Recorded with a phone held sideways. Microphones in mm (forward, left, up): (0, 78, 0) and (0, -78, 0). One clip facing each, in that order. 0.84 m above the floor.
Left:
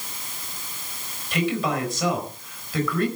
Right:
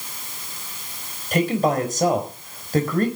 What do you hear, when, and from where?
1.3 s a man speaking: 45° right (ahead or behind), 4.5 m